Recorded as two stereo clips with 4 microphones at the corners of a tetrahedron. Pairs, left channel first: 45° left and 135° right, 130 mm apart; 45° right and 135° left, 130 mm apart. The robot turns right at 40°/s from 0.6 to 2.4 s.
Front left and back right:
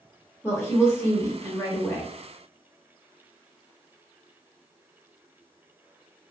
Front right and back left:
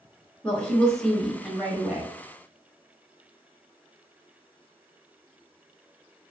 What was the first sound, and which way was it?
A woman speaking, 15° left.